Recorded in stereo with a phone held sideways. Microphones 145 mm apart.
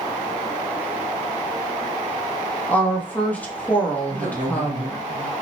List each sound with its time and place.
2.7 s a woman speaking: 10° left (ahead or behind), 0.7 m
4.1 s a man speaking: 60° right (ahead or behind), 0.9 m